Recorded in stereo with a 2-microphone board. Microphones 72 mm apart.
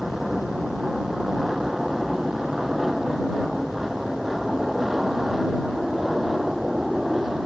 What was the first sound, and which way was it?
An aircraft, 5° right (ahead or behind).